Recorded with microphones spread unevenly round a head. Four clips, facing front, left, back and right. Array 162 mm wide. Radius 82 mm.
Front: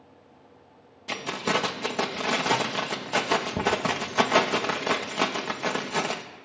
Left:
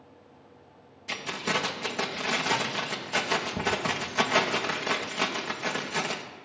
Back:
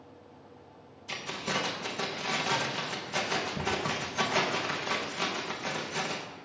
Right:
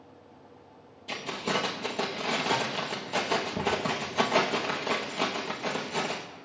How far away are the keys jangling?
About 0.8 m.